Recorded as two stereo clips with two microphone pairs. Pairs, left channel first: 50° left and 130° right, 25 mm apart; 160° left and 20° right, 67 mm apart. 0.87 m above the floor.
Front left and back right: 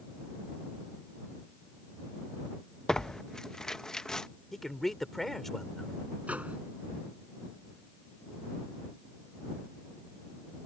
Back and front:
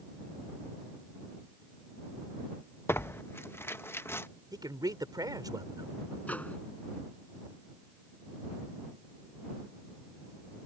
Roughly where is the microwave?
Behind right.